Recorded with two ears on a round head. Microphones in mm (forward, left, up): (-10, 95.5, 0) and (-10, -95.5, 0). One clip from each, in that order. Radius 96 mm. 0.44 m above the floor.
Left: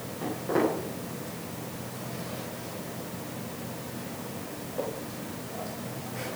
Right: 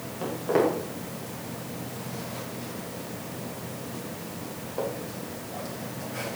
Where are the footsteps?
35° right (ahead or behind), 8.5 m; by 6.4 s 65° right (ahead or behind), 6 m.